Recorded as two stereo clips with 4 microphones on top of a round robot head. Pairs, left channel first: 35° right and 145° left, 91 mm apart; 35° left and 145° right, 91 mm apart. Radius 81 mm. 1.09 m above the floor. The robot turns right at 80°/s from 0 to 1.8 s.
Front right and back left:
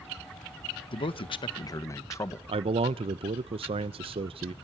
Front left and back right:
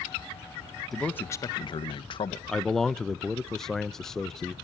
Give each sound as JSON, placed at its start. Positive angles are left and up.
{"t": 0.9, "sound": "a man speaking", "azimuth_deg": -55, "distance_m": 1.5}
{"t": 2.5, "sound": "a man speaking", "azimuth_deg": 120, "distance_m": 0.6}